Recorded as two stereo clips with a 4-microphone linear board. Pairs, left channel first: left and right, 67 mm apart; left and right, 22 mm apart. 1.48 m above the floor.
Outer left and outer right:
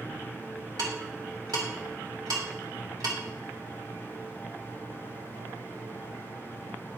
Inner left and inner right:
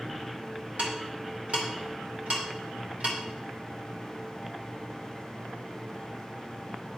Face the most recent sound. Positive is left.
turn(degrees=-70)  # may be behind; listen again after turning